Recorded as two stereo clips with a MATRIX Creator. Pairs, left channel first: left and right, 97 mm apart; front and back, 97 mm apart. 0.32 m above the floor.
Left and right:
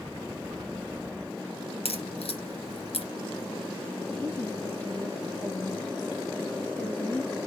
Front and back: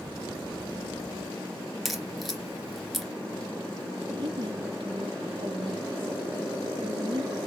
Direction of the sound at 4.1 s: 160° left.